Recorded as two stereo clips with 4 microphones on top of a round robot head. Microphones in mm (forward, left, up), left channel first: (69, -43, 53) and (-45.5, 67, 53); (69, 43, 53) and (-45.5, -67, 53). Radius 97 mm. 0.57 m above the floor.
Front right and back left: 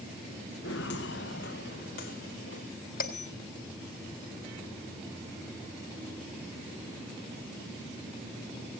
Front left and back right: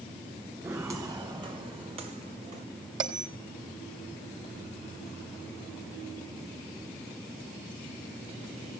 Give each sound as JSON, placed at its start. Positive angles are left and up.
{"t": 0.6, "sound": "footsteps", "azimuth_deg": -60, "distance_m": 2.5}
{"t": 3.0, "sound": "a bell", "azimuth_deg": -75, "distance_m": 3.0}